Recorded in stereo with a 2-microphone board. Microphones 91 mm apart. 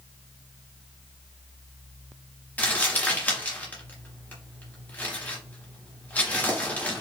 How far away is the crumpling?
About 1.4 m.